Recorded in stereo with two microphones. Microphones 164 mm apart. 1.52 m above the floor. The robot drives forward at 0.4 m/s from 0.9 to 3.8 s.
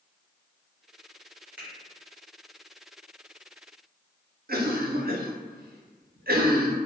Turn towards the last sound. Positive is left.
turn(degrees=-70)  # may be behind; listen again after turning